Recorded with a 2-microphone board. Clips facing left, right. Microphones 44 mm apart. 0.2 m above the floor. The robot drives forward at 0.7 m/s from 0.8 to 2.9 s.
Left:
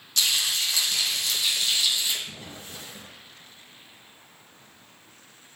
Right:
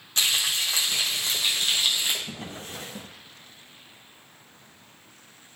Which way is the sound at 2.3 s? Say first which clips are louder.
Right 3 dB; 55° right (ahead or behind).